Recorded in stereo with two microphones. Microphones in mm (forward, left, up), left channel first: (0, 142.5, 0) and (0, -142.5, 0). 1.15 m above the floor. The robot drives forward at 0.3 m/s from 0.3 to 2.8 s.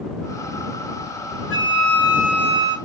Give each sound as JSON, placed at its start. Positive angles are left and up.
{"t": 1.5, "sound": "a flute", "side_deg": -45, "distance_m": 1.2}